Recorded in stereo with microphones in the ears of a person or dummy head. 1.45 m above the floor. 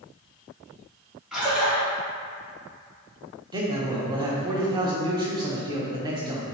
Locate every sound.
1.3 s a splash: 5° right (ahead or behind), 1.1 m
3.5 s a man speaking: 20° right (ahead or behind), 0.7 m